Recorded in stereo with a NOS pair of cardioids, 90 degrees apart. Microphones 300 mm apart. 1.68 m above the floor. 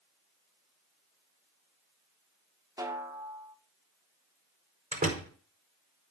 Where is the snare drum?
10° right, 1.9 m.